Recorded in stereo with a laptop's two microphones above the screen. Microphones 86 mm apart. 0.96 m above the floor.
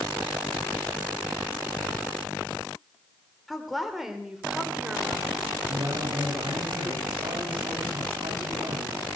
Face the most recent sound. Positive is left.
turn(degrees=-80)